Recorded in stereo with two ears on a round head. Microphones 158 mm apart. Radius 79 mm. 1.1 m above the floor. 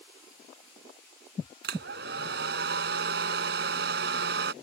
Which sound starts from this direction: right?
A hair dryer, at 1.6 s.